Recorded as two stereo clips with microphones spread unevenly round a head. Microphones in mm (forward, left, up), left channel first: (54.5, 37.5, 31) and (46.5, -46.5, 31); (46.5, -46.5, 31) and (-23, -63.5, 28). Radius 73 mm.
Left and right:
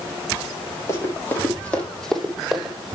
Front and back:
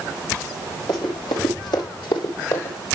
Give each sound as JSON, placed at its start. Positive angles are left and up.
{"t": 0.9, "sound": "running footsteps", "azimuth_deg": 35, "distance_m": 3.5}